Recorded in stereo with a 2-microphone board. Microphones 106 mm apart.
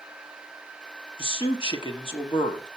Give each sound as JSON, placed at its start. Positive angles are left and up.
{"t": 1.2, "sound": "a man speaking", "side_deg": 55, "distance_m": 1.4}